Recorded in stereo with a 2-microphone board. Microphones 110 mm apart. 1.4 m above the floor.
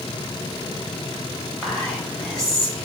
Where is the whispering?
5° left (ahead or behind), 2 m.